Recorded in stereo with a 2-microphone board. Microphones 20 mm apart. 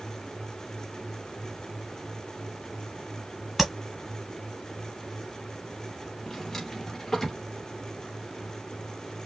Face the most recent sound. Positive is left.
turn(degrees=25)  # may be behind; listen again after turning